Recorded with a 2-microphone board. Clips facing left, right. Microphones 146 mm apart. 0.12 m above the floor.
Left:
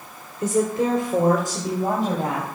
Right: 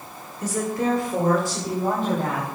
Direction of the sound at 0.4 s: 25° left (ahead or behind).